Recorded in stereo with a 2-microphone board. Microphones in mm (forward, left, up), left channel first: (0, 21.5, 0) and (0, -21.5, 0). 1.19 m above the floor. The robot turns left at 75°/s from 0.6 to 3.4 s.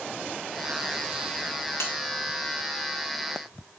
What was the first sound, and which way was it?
A bell, 75° left (ahead or behind).